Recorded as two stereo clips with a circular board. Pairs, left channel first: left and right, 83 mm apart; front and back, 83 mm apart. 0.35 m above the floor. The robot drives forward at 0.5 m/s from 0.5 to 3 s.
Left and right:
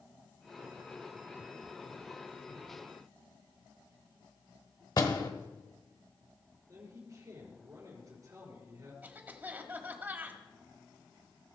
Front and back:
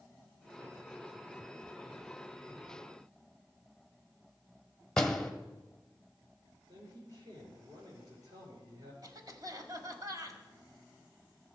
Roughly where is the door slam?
Left.